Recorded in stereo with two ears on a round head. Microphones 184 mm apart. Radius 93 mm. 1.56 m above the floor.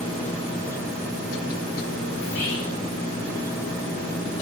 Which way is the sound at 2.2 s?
55° left (ahead or behind).